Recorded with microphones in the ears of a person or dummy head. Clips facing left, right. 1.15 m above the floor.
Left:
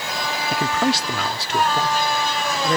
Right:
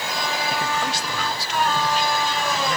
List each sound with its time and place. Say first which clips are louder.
0.5 s a man speaking: left 5 dB; 65° left (ahead or behind); by 2.8 s 40° left (ahead or behind)